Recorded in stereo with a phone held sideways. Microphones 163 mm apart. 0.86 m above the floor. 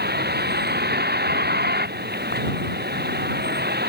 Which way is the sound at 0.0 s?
85° right.